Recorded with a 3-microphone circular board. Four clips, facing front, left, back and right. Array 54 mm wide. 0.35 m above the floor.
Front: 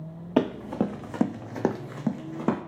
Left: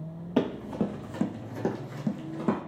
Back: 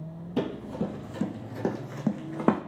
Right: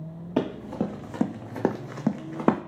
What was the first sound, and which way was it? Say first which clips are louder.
Running footsteps: even, front 5 dB; 5° right.